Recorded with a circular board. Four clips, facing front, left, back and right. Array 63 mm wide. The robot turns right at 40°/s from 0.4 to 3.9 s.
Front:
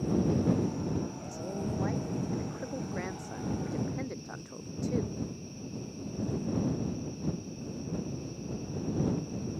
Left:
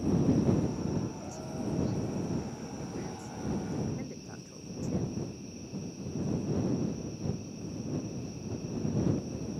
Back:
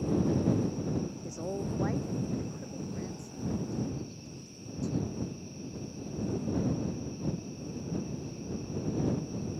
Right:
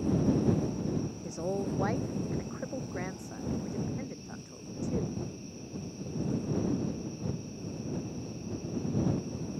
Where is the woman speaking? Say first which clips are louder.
Right 4 dB, even; 115° right; by 5.2 s 5° right.